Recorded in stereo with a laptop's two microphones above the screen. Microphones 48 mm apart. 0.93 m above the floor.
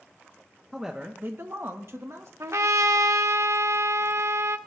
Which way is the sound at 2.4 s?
75° right (ahead or behind).